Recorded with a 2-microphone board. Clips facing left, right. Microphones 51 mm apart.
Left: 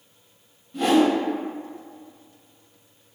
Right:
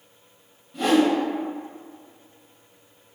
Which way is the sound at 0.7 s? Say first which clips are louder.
Left 1 dB; centre (ahead or behind).